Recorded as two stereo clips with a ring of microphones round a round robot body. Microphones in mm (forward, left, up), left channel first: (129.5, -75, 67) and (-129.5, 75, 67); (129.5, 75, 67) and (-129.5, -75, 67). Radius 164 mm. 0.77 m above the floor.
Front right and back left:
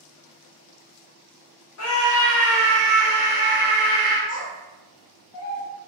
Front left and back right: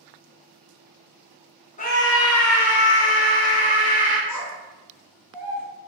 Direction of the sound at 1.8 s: 30° right.